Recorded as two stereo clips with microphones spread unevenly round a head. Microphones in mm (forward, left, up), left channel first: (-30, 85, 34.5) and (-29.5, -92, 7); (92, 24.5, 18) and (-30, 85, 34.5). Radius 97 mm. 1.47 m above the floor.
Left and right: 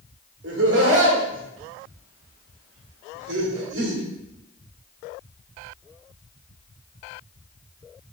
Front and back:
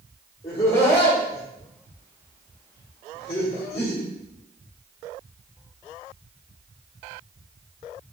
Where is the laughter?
80° right, 1.3 m.